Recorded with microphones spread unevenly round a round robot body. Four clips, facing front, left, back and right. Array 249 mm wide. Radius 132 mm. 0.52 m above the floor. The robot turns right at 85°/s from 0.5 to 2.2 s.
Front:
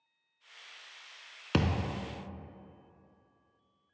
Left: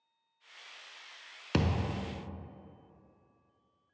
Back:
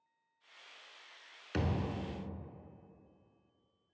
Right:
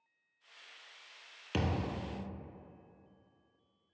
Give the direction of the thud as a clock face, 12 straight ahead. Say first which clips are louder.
Left 3 dB, front 5 dB; 11 o'clock.